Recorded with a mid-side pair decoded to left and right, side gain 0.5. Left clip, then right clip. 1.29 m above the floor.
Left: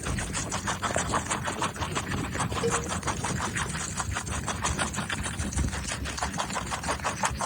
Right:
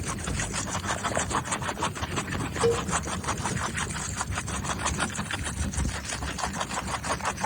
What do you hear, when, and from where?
2.6 s a cowbell: 20° right, 1.2 m